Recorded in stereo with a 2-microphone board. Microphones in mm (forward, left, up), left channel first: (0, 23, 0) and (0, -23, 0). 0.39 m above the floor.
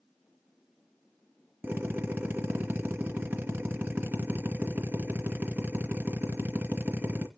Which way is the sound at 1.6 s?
50° right (ahead or behind).